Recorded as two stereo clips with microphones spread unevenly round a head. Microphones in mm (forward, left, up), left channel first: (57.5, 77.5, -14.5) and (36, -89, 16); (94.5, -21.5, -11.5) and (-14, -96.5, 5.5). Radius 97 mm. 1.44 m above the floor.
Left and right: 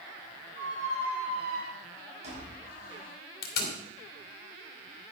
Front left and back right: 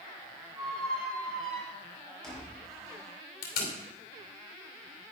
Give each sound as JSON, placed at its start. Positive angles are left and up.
{"t": 0.6, "sound": "a squeak", "azimuth_deg": -50, "distance_m": 4.5}
{"t": 3.4, "sound": "tape being pulled", "azimuth_deg": 50, "distance_m": 2.5}